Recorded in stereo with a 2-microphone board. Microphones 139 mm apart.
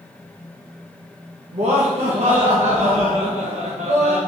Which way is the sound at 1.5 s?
55° right (ahead or behind).